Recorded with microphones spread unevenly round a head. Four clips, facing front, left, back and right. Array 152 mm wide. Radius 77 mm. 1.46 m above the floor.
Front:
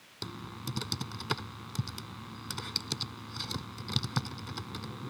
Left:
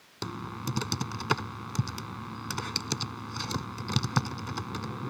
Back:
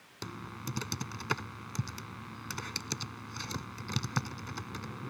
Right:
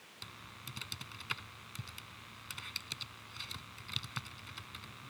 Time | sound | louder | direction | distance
0.2 | typing on a keyboard | left 18 dB, even | 90° left | ?